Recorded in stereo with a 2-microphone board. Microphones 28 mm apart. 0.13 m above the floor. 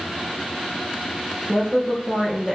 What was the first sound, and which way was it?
A woman speaking, 15° right (ahead or behind).